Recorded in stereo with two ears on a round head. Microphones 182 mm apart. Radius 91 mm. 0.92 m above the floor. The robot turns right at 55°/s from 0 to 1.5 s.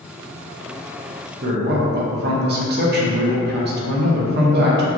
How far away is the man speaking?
About 0.5 m.